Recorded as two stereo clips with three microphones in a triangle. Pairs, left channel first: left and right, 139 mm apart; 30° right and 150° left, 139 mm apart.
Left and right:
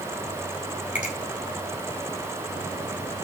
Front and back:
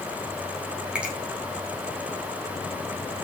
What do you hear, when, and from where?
0.9 s a finger snap: 70° left, 3.5 m